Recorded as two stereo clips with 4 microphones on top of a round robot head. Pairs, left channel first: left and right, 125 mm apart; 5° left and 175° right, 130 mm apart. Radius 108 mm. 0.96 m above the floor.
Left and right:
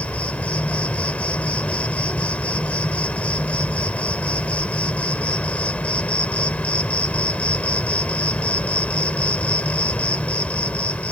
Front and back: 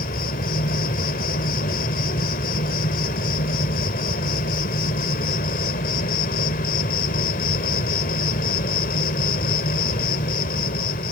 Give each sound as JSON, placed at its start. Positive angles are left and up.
{"t": 0.0, "sound": "an insect", "azimuth_deg": 10}